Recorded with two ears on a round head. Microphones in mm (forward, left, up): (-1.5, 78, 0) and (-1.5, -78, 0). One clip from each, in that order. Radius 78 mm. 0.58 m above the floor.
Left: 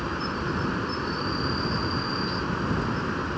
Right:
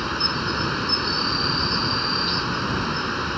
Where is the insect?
70° right (ahead or behind).